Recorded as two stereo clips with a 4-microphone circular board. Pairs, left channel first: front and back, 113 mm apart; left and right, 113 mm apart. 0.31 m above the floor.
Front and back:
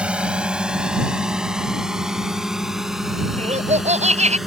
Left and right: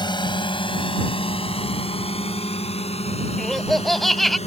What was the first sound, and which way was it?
A drone, 105° left.